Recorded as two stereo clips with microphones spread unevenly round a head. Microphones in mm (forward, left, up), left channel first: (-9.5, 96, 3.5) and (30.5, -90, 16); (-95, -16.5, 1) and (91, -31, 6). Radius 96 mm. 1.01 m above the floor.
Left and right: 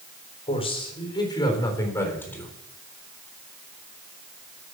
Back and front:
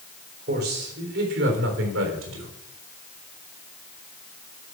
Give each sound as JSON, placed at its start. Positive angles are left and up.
{"t": 0.5, "sound": "a man speaking", "azimuth_deg": 40, "distance_m": 3.5}